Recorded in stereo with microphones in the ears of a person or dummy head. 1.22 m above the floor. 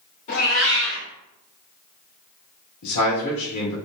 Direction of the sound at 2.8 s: 90° left.